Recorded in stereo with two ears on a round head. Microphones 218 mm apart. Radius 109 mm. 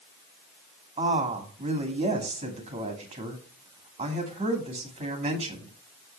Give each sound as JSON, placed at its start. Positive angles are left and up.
{"t": 1.0, "sound": "a woman speaking", "side_deg": -25, "distance_m": 2.0}